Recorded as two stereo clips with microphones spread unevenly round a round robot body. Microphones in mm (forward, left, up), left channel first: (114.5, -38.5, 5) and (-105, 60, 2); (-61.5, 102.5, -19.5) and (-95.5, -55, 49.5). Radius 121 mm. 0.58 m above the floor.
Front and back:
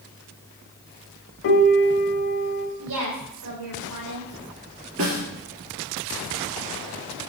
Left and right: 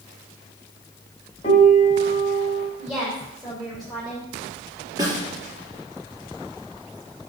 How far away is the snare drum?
About 4.5 m.